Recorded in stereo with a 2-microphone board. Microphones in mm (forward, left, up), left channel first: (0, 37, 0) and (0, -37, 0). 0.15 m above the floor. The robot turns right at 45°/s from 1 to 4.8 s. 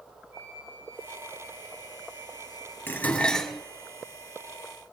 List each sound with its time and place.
0.3 s a flute: 150° right, 4 m; by 2.8 s 70° right, 4 m
2.9 s dishes clattering: 145° left, 1.4 m; by 3.6 s straight behind, 1.4 m